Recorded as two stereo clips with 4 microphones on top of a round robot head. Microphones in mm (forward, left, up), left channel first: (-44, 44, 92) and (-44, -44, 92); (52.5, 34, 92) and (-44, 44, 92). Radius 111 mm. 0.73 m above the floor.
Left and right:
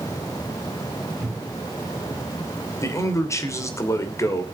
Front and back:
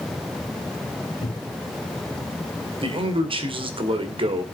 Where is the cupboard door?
10° right, 3 m.